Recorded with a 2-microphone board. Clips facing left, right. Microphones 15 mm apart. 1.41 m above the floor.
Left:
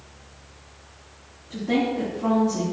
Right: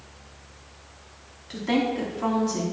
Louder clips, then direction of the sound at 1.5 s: Left 1 dB; 80° right.